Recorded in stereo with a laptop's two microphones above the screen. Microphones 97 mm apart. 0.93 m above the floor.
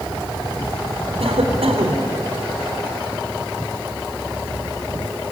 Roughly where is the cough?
Right.